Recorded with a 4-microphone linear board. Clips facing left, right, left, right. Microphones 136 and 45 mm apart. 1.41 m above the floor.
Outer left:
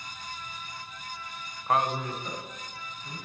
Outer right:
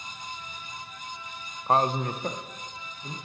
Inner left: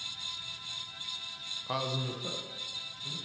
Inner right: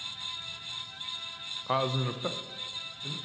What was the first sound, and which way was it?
A man speaking, 25° right (ahead or behind).